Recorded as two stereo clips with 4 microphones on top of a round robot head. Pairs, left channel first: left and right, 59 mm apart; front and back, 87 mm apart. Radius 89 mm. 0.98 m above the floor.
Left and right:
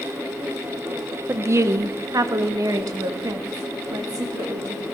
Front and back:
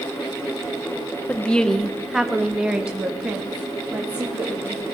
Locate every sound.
1.3 s a woman speaking: 65° right, 0.7 m; by 4.8 s 110° right, 2.5 m